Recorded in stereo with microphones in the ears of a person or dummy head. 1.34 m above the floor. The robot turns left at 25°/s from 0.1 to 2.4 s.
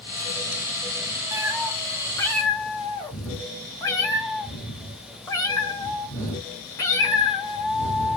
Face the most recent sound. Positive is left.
turn(degrees=15)  # may be behind; listen again after turning